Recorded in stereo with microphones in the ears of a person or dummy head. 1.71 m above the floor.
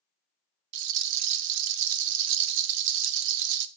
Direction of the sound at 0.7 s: 65° right (ahead or behind).